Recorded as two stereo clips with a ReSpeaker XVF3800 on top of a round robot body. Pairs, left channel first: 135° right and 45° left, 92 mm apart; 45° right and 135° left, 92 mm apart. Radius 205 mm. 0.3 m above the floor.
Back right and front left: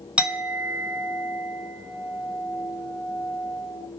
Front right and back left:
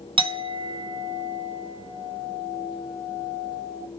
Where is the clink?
120° left, 1.0 m.